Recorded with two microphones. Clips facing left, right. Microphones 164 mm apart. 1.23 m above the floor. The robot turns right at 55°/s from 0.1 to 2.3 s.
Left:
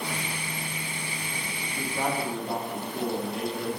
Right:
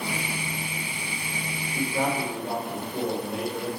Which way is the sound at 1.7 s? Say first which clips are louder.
Right 3 dB; 125° right.